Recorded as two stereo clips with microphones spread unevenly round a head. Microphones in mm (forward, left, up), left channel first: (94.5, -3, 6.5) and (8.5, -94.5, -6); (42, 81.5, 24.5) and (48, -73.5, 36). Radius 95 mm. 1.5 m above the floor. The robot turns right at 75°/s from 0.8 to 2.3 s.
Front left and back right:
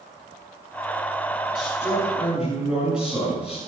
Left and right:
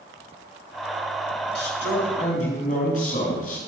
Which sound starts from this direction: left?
A man speaking, at 1.6 s.